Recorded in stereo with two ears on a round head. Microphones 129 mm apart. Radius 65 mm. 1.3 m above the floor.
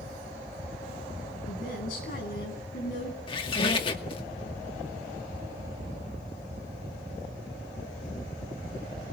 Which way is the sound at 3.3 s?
40° left (ahead or behind).